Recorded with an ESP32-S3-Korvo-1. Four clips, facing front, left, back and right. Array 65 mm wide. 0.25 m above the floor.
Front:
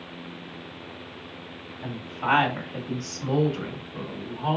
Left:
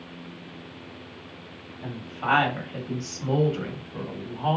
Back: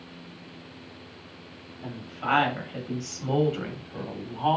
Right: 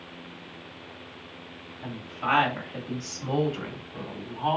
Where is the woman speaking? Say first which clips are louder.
Left 1 dB, front 3 dB; 15° left, 1.4 m; by 4.6 s 165° right, 1.6 m.